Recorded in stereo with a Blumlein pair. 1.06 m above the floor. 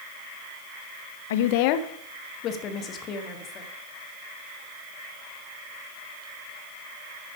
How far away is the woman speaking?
About 0.6 m.